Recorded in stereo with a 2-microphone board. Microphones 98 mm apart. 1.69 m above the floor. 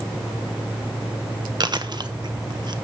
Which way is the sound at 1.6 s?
50° right (ahead or behind).